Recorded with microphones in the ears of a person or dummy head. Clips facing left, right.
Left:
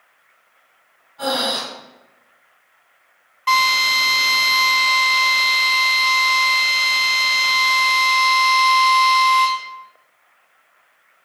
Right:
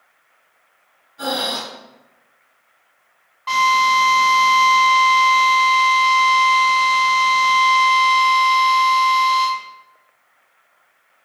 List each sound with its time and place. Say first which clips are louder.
1.2 s breathing: left 2 dB; 35° right (ahead or behind), 2.0 m
3.5 s a drill: right 4 dB; 40° left (ahead or behind), 1.5 m